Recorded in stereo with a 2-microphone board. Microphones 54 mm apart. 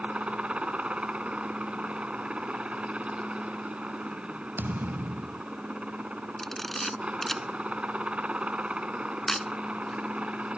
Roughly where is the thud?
Right.